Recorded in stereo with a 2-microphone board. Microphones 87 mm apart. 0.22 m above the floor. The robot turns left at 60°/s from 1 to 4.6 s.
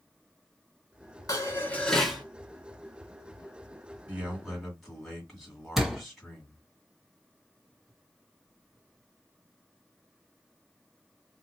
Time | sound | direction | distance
1.3 | dishes clattering | 50° left | 1.5 m
4.1 | a man speaking | 150° right | 2 m
5.8 | a door slam | 5° right (ahead or behind) | 1.4 m